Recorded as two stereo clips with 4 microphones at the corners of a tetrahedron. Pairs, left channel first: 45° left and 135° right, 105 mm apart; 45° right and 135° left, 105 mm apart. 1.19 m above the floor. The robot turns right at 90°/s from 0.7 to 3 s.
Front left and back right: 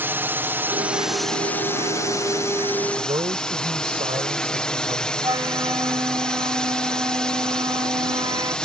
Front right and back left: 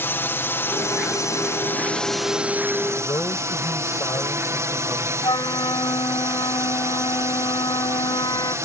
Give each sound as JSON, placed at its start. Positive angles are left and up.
{"t": 0.0, "sound": "a drone", "azimuth_deg": -90}
{"t": 3.0, "sound": "a man speaking", "azimuth_deg": -110}
{"t": 5.2, "sound": "a flute", "azimuth_deg": -85}